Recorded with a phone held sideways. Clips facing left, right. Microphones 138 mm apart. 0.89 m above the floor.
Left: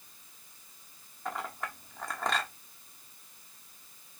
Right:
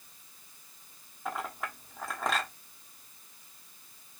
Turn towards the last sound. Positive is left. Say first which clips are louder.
# right 1 dB
turn(degrees=-5)  # may be behind; listen again after turning